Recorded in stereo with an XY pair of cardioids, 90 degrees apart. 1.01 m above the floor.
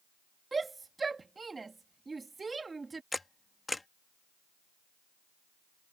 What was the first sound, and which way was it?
A shout, 30° right.